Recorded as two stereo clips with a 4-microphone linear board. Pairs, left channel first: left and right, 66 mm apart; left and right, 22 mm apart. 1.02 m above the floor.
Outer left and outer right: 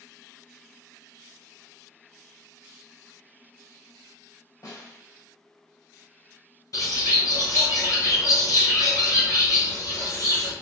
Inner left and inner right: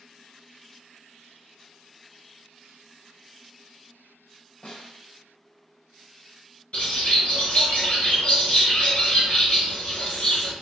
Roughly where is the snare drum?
Left.